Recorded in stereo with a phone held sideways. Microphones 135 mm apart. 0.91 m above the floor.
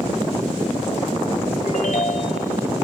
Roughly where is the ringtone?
Left.